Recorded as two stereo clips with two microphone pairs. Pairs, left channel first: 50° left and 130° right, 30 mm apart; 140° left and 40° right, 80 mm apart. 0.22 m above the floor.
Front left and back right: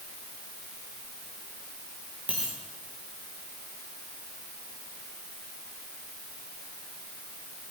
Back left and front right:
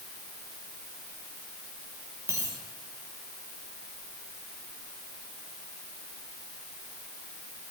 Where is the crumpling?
No crumpling in this recording.